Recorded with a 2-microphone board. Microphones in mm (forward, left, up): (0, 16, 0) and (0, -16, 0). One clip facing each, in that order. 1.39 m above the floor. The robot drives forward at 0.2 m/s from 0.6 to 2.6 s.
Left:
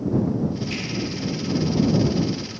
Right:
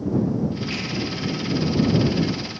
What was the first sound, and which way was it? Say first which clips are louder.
A finger snap: right 1 dB; 40° right (ahead or behind).